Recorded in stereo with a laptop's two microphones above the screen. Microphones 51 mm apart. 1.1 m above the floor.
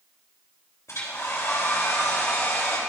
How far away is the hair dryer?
About 2.5 m.